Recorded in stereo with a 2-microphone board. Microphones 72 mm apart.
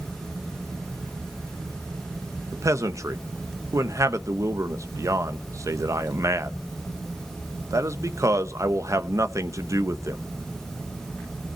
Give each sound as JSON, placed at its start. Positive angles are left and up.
{"t": 2.5, "sound": "a man speaking", "side_deg": -45, "distance_m": 1.0}